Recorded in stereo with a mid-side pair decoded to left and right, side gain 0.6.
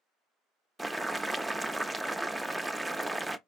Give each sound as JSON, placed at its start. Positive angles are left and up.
{"t": 0.8, "sound": "boiling", "azimuth_deg": -10, "distance_m": 0.6}